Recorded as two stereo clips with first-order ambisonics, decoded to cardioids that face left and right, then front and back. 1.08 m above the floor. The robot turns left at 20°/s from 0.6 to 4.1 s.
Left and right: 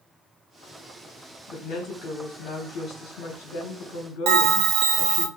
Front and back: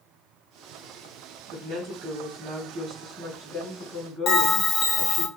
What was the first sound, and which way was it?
A woman speaking, 135° left.